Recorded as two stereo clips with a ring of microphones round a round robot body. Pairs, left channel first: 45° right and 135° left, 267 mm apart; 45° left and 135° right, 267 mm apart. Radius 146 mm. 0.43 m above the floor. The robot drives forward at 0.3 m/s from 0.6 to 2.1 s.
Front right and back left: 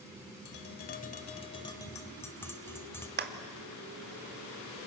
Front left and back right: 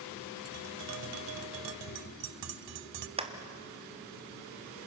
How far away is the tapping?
About 0.7 m.